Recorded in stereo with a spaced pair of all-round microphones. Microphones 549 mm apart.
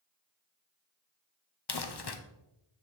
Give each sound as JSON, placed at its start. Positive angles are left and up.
{"t": 1.7, "sound": "crumpling", "side_deg": 45, "distance_m": 0.7}